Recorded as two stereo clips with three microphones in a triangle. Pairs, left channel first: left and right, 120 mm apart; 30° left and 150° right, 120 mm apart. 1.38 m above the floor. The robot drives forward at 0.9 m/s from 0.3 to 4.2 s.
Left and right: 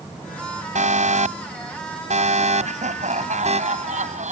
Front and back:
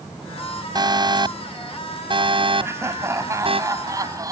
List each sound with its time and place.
0.8 s an alarm: 95° right; by 3.6 s 110° right
2.6 s laughter: 80° right; by 4.3 s 90° right